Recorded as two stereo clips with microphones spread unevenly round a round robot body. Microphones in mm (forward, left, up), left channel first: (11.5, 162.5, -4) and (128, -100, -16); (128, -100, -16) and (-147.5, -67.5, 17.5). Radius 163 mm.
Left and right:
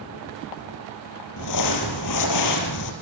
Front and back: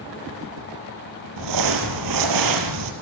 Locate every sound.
1.4 s crumpling: 150° left, 4.5 m